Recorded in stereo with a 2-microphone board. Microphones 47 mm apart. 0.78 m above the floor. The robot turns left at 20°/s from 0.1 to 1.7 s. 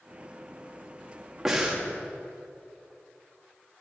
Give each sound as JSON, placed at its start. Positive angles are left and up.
{"t": 1.4, "sound": "breathing", "side_deg": -10, "distance_m": 1.2}